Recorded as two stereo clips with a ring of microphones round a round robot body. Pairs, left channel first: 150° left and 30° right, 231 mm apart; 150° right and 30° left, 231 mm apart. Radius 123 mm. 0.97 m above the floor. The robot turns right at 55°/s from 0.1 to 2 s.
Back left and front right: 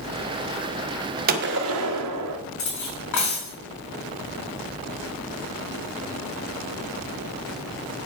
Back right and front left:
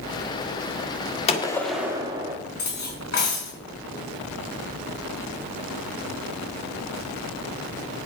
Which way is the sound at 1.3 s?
85° right.